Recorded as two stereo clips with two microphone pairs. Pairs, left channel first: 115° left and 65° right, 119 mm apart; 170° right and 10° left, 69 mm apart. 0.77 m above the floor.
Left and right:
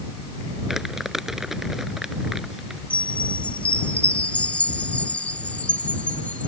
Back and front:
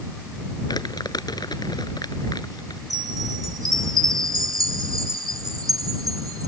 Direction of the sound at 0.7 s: 155° right.